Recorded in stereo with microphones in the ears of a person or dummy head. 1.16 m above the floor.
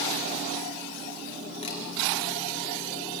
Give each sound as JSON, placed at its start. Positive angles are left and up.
{"t": 1.6, "sound": "a camera shutter", "side_deg": 40, "distance_m": 5.0}